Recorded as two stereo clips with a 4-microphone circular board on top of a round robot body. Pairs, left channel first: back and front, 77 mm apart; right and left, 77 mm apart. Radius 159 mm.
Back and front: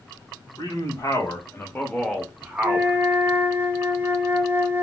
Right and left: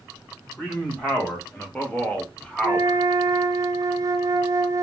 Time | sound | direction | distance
0.6 | a man speaking | 160° right | 1.4 m
2.6 | a flute | 60° left | 0.7 m